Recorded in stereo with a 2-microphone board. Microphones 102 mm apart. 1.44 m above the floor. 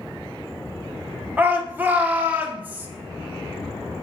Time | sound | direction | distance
1.4 | a shout | 20° right (ahead or behind) | 0.6 m